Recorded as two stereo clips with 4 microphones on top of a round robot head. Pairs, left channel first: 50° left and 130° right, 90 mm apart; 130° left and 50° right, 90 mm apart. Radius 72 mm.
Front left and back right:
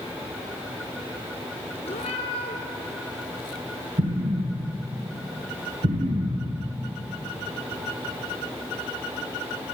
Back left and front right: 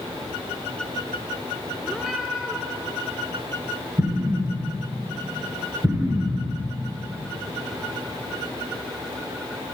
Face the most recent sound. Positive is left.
turn(degrees=-120)